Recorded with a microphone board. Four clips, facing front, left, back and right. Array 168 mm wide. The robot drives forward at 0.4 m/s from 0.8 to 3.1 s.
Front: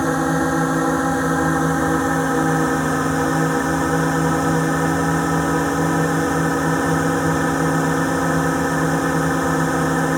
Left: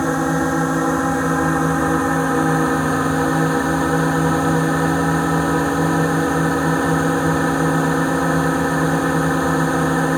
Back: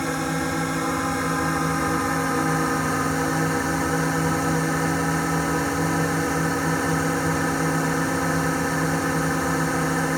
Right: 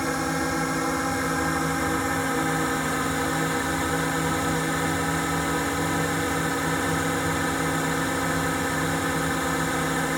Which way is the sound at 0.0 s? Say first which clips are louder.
Left 8 dB, front 7 dB; 45° left.